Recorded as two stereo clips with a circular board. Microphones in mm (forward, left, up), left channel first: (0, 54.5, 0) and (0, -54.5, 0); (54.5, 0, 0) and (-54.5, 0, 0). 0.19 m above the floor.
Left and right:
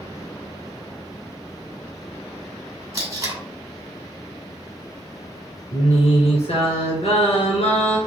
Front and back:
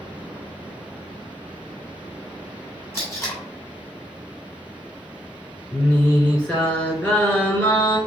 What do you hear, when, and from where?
2.9 s tape being pulled: 50° right, 1.9 m
5.7 s singing: 80° left, 1.4 m